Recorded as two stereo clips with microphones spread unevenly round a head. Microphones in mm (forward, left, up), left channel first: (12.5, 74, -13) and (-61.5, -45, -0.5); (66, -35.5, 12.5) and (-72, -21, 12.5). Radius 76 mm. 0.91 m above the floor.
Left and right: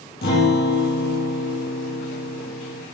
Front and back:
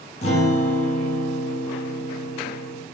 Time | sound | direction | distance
0.2 | a guitar | 45° left | 4.5 m